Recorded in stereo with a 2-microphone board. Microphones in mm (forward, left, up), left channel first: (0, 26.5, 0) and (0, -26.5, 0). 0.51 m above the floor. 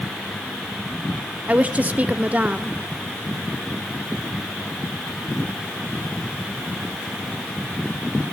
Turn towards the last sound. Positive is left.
turn(degrees=-30)  # may be behind; listen again after turning